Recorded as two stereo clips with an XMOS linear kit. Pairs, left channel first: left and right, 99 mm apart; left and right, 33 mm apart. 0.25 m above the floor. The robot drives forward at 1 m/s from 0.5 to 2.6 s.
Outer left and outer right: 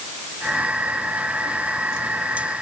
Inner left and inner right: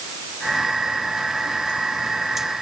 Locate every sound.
Only background noise.